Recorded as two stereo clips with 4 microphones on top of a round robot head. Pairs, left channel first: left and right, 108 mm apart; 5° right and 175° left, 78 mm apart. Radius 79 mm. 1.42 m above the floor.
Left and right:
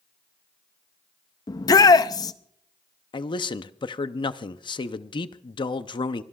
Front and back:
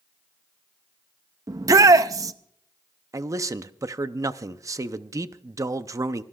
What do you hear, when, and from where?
1.5 s a shout: 140° left, 0.6 m
3.1 s a man speaking: 130° left, 0.6 m